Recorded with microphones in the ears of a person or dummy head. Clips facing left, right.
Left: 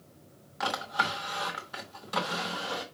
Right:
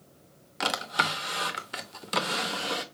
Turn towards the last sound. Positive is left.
turn(degrees=-40)  # may be behind; listen again after turning